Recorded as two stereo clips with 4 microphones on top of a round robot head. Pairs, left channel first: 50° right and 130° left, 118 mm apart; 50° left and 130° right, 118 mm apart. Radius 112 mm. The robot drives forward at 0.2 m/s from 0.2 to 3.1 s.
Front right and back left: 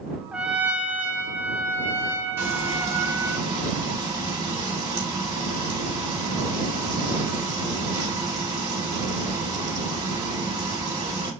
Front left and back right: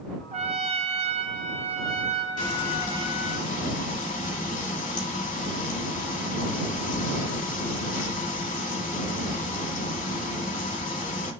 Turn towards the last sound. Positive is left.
turn(degrees=70)